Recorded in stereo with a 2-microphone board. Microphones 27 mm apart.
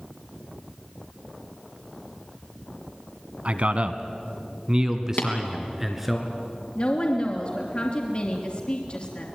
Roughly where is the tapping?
Left.